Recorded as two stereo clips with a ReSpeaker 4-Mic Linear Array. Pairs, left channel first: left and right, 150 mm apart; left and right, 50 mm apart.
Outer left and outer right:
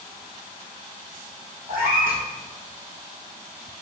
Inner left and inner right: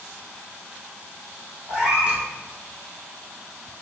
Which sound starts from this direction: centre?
A cat meowing, at 1.7 s.